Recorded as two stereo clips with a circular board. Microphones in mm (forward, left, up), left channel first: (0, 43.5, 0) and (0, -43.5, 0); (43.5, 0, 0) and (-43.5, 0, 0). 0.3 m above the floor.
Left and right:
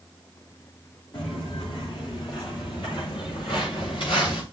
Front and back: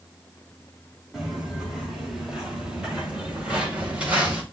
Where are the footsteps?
90° left, 6.5 m; by 4.4 s 105° left, 5 m.